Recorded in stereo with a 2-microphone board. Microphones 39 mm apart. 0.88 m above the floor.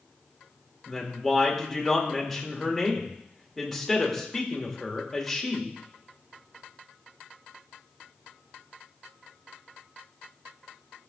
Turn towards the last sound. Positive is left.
turn(degrees=5)  # may be behind; listen again after turning